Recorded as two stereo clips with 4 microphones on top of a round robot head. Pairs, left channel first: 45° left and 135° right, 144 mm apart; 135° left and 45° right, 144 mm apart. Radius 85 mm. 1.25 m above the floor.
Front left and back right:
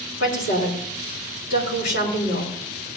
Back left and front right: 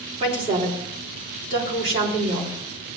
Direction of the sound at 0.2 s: 10° left.